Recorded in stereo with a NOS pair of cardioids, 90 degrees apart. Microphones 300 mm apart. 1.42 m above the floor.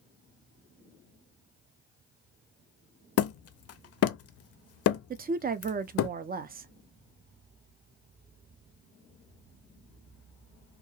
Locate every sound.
3.2 s hammering: 55° left, 0.5 m
5.1 s a woman speaking: 30° right, 0.5 m